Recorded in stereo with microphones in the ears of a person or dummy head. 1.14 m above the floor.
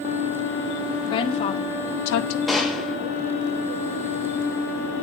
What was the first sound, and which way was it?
A woman speaking, 25° left (ahead or behind).